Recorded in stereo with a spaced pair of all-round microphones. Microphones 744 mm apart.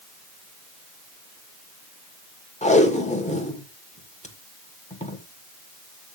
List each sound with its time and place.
2.6 s tape being pulled: 10° left (ahead or behind), 1.8 m